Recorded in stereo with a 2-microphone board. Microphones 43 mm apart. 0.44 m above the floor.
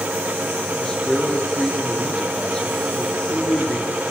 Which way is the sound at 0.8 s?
15° left (ahead or behind).